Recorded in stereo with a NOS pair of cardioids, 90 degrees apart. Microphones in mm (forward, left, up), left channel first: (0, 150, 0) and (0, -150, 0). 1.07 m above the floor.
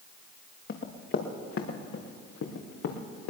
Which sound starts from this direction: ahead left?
Running footsteps, at 0.7 s.